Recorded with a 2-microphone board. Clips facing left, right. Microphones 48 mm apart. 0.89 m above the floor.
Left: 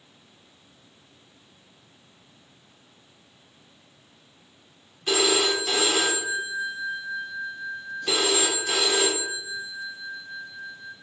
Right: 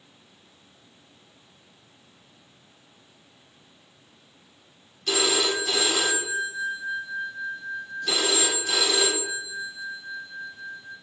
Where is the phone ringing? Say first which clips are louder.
Left 2 dB; 20° left (ahead or behind), 1.9 m.